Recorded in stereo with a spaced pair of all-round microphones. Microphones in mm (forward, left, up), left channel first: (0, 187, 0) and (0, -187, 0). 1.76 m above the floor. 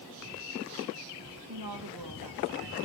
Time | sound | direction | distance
1.5 | a woman speaking | 70° right (ahead or behind) | 2.0 m